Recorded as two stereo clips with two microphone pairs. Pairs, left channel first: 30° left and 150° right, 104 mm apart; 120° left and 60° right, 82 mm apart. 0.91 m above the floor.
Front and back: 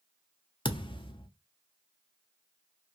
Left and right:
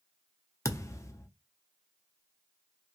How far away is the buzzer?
I don't hear a buzzer.